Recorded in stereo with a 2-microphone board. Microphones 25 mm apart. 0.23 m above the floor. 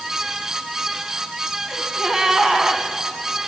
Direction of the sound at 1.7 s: 25° right (ahead or behind).